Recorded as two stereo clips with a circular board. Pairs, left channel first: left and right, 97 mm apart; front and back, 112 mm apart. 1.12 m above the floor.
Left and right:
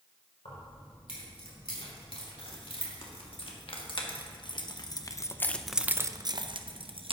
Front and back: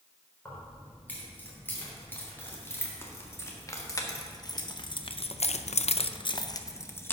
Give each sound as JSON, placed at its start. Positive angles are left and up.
{"t": 0.5, "sound": "keys jangling", "azimuth_deg": 75, "distance_m": 3.5}